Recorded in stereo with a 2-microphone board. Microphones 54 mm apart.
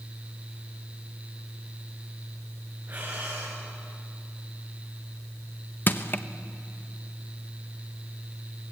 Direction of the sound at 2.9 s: 25° right (ahead or behind).